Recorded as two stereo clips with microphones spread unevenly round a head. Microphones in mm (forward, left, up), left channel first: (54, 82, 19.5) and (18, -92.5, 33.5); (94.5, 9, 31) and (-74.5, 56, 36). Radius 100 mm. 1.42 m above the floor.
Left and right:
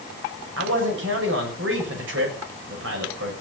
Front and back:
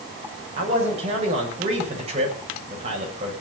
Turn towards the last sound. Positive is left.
turn(degrees=-135)